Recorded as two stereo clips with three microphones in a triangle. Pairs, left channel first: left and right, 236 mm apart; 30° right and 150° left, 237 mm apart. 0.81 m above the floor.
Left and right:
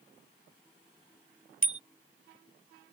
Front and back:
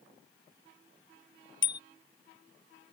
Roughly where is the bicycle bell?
Right.